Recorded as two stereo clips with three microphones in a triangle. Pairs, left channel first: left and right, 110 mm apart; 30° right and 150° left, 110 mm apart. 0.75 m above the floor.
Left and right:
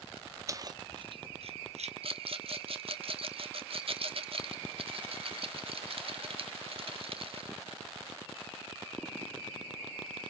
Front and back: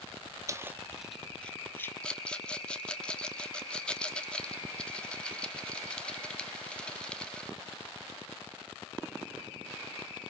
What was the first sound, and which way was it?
Keys jangling, 150° right.